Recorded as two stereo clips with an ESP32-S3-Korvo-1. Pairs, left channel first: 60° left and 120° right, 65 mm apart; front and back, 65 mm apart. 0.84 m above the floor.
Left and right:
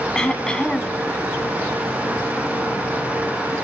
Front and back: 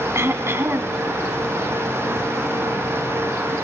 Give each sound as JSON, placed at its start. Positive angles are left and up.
{"t": 0.1, "sound": "throat clearing", "azimuth_deg": 140, "distance_m": 1.8}